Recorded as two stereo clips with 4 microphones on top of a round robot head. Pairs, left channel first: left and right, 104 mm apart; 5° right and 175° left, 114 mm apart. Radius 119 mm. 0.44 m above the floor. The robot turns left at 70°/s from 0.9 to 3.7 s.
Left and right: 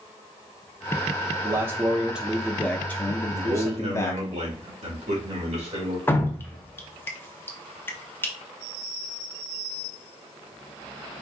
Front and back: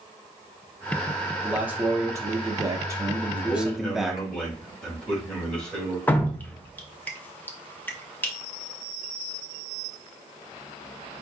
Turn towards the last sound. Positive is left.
turn(degrees=50)